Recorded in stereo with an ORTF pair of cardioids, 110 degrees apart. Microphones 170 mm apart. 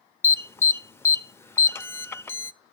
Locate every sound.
0.2 s an alarm: 15° left, 0.6 m